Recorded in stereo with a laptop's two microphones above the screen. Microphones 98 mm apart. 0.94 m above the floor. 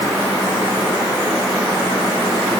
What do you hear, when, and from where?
Only background noise.